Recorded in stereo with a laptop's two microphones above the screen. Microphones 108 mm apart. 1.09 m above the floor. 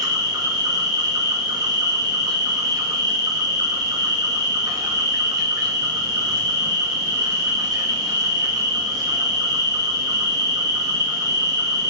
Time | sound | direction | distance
0.0 | an insect | 35° right (ahead or behind) | 1.6 m